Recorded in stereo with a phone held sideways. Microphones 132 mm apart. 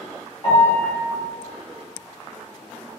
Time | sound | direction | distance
0.4 | a piano | 40° left (ahead or behind) | 0.9 m